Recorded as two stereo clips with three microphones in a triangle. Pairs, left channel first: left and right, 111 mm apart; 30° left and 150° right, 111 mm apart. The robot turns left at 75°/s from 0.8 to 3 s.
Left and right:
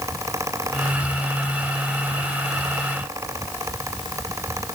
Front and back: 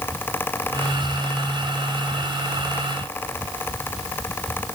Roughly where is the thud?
No thud in this recording.